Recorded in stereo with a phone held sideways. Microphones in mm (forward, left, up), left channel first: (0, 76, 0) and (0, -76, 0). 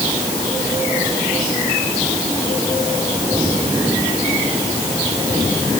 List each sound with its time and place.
Only background noise.